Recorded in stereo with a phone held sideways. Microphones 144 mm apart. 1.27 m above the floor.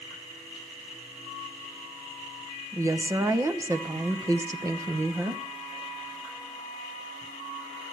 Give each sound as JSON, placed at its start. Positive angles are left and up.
{"t": 2.7, "sound": "a woman speaking", "side_deg": -20, "distance_m": 1.1}